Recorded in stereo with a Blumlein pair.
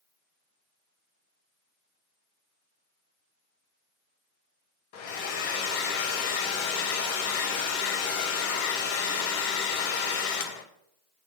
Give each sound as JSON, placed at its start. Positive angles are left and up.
{"t": 4.9, "sound": "a hair dryer", "azimuth_deg": 45, "distance_m": 1.2}